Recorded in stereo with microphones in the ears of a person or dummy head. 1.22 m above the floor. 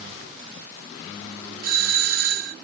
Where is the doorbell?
50° right (ahead or behind).